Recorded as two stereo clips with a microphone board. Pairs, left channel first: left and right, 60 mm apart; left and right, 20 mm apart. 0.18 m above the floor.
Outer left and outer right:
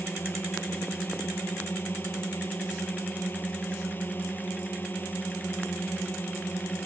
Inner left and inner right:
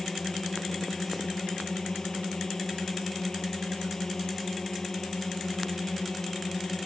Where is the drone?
35° left (ahead or behind).